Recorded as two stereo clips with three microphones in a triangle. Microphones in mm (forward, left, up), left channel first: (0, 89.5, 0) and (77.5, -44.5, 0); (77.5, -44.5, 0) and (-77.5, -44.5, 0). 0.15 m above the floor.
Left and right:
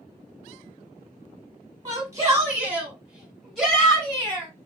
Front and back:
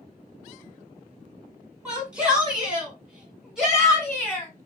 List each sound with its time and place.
1.9 s a shout: 105° right, 1.8 m; by 4.5 s 90° left, 1.6 m